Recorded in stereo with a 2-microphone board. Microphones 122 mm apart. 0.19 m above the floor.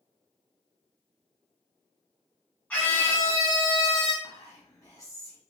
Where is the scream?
15° left (ahead or behind), 1.4 m; by 4.1 s 50° left (ahead or behind), 1.7 m.